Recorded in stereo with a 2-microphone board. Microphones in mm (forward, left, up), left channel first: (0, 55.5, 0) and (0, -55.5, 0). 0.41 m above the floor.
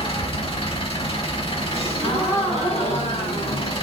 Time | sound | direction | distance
0.0 | an engine running | 55° left (ahead or behind) | 1.1 m
1.7 | a gasp | 70° left (ahead or behind) | 3 m